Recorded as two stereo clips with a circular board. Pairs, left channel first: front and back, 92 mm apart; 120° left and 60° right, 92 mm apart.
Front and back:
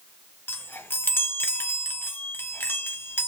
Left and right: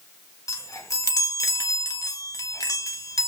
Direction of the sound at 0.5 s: 65° left.